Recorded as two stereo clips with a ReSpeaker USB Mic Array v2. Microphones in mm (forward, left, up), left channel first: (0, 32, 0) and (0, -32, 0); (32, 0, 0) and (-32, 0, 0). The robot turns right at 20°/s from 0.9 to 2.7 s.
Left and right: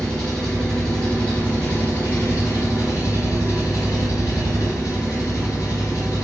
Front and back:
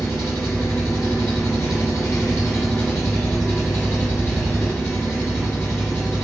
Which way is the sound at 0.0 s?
15° left.